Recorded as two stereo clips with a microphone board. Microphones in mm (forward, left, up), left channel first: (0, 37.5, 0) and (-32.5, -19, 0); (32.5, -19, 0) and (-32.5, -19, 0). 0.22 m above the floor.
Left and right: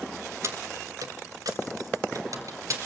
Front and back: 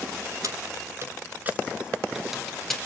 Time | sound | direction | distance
0.4 | keys jangling | 160° right | 1.8 m